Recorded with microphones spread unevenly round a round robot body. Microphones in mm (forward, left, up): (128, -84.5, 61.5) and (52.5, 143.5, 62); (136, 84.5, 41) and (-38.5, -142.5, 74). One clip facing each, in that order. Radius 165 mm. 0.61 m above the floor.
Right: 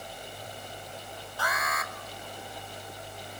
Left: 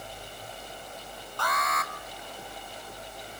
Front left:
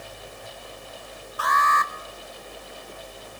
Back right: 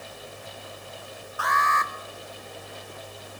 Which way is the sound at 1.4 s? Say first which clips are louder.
Left 2 dB, front left 2 dB; 10° left.